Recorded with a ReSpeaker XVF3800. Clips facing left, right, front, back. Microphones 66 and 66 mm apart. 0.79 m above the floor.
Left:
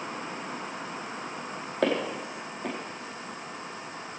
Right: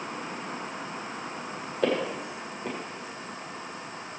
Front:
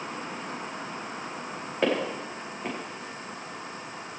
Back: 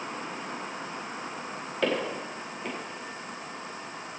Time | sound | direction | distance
1.8 | footsteps | 70° left | 5 m